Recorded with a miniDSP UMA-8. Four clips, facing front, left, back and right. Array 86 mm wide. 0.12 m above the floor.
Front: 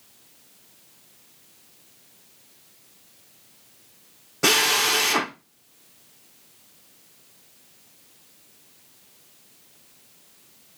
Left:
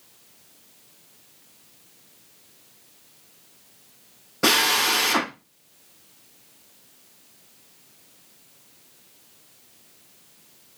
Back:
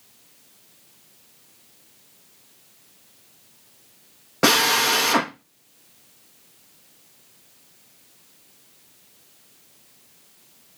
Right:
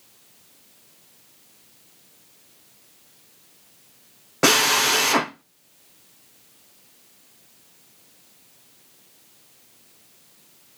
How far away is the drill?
About 2.5 m.